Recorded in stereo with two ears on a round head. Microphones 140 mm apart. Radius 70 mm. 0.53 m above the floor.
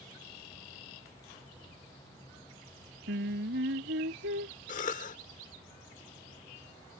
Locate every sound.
3.1 s singing: 75° right (ahead or behind)
4.7 s a cough: 55° left (ahead or behind)